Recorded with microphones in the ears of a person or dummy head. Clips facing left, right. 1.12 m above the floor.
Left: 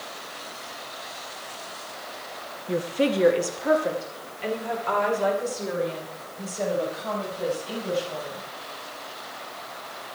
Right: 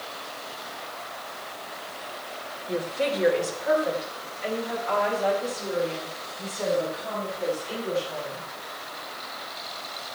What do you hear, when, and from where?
2.7 s a woman speaking: 35° left (ahead or behind), 1.1 m; by 8.4 s 75° left (ahead or behind), 6.5 m